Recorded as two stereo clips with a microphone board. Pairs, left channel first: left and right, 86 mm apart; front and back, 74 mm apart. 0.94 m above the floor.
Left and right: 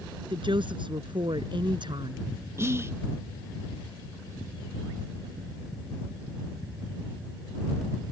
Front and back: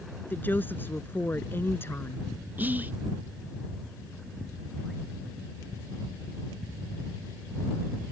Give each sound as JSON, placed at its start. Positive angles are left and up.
{"t": 0.3, "sound": "a woman speaking", "azimuth_deg": -65}
{"t": 2.6, "sound": "whispering", "azimuth_deg": -130}